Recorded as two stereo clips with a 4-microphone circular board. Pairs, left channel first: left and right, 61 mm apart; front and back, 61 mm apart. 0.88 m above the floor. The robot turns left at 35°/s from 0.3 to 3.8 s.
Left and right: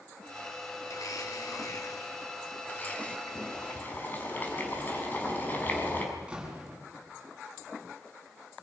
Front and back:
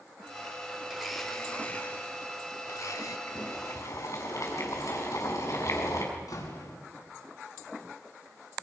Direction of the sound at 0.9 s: 95° left.